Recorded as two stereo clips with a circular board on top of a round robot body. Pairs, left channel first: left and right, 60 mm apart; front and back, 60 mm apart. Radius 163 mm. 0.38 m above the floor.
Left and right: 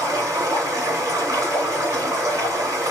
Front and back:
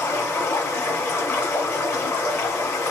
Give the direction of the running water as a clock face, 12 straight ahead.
2 o'clock.